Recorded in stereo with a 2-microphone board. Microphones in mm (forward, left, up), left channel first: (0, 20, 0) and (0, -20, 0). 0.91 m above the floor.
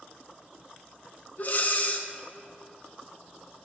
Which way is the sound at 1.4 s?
45° left (ahead or behind).